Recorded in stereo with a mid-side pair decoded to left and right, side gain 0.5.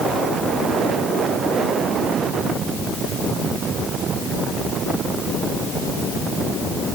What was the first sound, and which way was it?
Only background noise.